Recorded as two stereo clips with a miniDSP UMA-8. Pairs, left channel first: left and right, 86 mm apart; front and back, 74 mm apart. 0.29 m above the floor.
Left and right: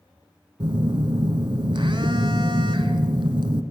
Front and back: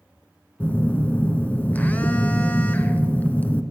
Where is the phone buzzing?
70° right, 0.7 m.